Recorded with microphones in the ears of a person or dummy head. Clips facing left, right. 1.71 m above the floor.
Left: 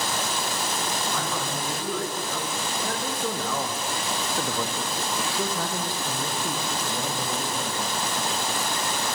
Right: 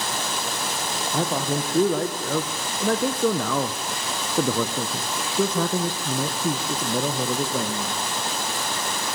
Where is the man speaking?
35° right (ahead or behind), 2.5 m; by 8.0 s 55° right (ahead or behind), 2.5 m.